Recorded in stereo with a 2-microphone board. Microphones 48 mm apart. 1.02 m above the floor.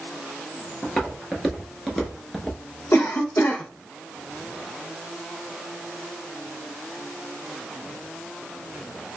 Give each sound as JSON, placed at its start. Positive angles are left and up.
{"t": 0.8, "sound": "footsteps", "side_deg": 10, "distance_m": 1.1}
{"t": 2.9, "sound": "a cough", "side_deg": 70, "distance_m": 0.6}